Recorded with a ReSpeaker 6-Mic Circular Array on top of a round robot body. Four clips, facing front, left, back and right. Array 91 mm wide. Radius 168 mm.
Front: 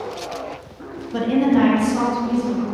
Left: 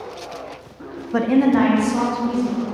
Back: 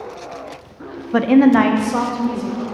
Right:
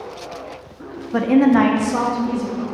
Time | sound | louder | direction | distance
1.1 | a woman speaking | right 2 dB, back 5 dB | 175° left | 0.8 m